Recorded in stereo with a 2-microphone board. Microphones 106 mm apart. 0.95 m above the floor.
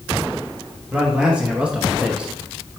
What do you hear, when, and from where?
0.9 s a man speaking: 10° right (ahead or behind), 1.2 m